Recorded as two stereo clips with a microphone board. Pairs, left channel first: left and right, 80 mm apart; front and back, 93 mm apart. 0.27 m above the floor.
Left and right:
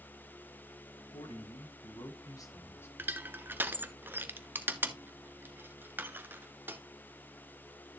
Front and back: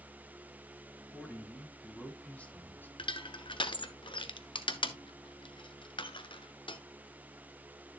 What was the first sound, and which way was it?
A man speaking, 85° left.